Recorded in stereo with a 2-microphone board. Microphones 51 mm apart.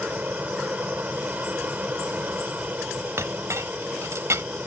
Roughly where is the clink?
Right.